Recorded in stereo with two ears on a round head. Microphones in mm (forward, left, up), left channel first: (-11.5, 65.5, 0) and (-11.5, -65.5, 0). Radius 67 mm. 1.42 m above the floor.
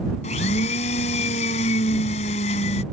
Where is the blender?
45° left (ahead or behind).